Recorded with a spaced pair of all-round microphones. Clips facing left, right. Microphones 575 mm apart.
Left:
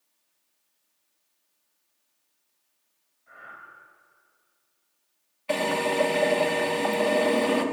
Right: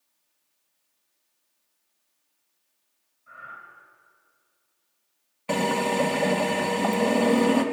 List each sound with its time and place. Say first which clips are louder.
3.3 s breathing: even; 35° right (ahead or behind), 5.5 m
5.5 s a drill: right 1 dB; 65° right (ahead or behind), 2 m